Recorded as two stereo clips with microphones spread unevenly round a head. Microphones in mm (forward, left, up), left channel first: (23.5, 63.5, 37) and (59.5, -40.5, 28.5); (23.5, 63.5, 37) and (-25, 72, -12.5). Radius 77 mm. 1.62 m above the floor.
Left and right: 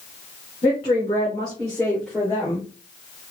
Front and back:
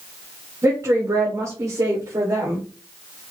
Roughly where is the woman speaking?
Behind.